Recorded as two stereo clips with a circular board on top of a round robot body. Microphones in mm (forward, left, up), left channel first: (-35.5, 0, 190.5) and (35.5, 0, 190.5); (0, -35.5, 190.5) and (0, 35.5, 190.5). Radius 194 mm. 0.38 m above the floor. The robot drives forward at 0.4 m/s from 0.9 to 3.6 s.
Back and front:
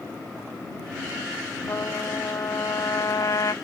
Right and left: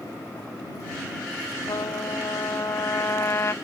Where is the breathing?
No breathing in this recording.